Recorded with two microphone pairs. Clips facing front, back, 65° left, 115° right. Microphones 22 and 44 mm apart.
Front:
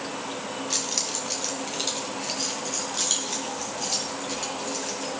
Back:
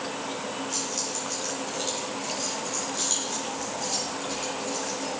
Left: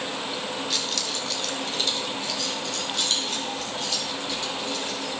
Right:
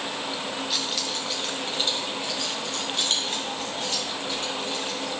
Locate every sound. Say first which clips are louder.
0.7 s keys jangling: front 3 dB, even; 30° right, 1.8 m; by 5.1 s 65° right, 5.5 m